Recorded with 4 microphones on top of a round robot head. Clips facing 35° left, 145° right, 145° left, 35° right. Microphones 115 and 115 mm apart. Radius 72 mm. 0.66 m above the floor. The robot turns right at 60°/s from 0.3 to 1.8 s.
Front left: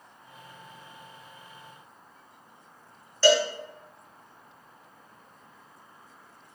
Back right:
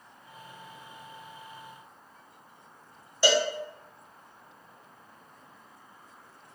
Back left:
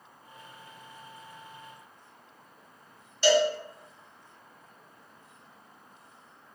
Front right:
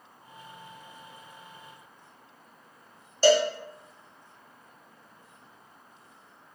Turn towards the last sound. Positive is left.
turn(degrees=-75)